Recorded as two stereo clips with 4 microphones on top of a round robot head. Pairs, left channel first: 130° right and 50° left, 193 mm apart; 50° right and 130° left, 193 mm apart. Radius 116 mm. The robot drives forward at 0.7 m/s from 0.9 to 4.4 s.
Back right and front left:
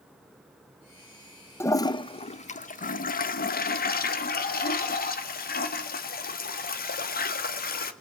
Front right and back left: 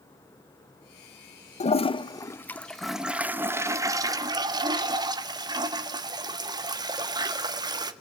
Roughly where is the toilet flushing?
Ahead right.